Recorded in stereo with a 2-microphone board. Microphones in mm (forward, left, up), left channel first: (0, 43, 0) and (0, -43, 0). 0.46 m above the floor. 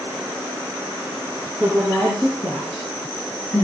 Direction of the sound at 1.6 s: 5° left (ahead or behind).